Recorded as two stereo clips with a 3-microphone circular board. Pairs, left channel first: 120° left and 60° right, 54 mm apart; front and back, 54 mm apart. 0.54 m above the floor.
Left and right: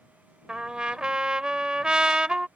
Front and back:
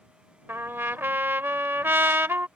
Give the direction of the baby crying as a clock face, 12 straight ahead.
No baby crying in this recording.